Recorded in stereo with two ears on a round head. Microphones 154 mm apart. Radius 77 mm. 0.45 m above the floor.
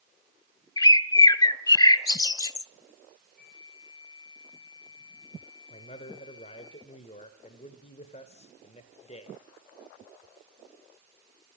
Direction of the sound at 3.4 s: Centre (ahead or behind).